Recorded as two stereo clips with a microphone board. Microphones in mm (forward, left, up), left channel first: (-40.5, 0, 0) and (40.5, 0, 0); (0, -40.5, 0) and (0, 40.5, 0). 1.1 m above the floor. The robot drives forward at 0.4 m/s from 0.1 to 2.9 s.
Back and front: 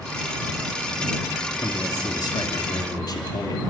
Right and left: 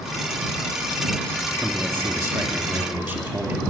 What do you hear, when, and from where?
1.6 s a man speaking: 155° left, 2.5 m; by 3.6 s 160° left, 3 m